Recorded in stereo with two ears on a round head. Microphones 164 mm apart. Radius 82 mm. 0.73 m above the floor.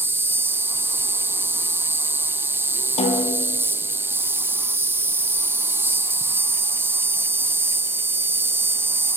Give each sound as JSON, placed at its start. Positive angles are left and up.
{"t": 0.0, "sound": "an insect", "side_deg": -15, "distance_m": 2.0}
{"t": 3.0, "sound": "a snare drum", "side_deg": 40, "distance_m": 7.5}